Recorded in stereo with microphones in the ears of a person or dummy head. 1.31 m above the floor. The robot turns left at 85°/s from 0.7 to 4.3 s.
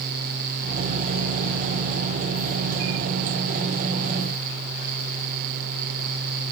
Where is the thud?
I don't hear a thud.